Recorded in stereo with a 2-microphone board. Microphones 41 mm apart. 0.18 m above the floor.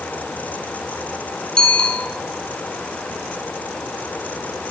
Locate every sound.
1.6 s a bicycle bell: 20° left (ahead or behind), 5 m